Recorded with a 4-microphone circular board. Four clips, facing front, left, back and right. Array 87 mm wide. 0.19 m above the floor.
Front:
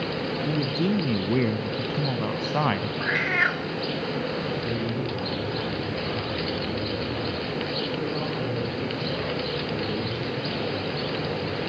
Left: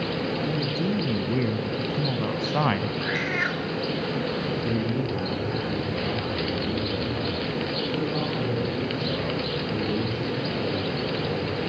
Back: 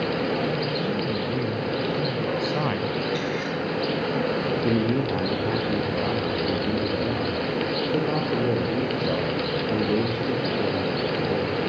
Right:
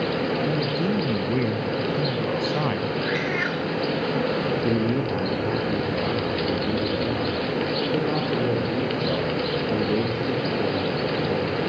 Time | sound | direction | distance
0.5 | a man speaking | 20° right | 2.5 m
3.0 | a cat meowing | straight ahead | 1.8 m
4.6 | a man speaking | 145° right | 5.5 m